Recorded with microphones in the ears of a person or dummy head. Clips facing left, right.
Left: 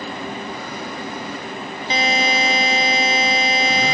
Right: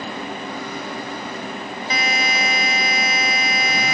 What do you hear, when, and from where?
1.9 s a buzzer: 25° left (ahead or behind)